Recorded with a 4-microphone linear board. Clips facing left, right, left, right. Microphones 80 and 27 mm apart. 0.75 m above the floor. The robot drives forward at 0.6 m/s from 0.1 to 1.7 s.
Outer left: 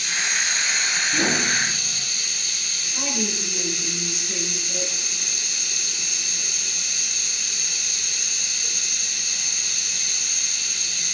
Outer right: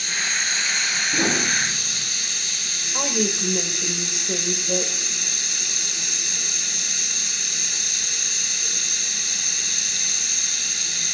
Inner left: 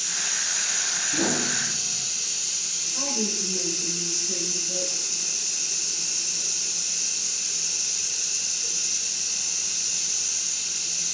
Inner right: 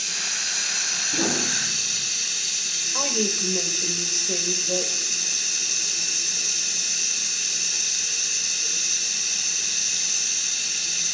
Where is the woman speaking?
70° right (ahead or behind), 3 m.